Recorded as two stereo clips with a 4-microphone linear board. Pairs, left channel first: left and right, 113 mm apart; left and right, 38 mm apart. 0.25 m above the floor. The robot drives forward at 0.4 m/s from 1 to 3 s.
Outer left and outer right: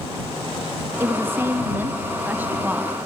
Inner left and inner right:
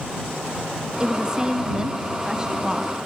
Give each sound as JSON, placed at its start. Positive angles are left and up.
{"t": 1.0, "sound": "a woman speaking", "side_deg": -20, "distance_m": 1.2}